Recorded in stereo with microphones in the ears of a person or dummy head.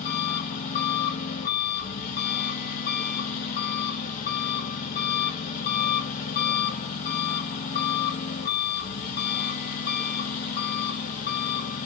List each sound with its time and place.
0.0 s an engine running: 40° left (ahead or behind), 2 m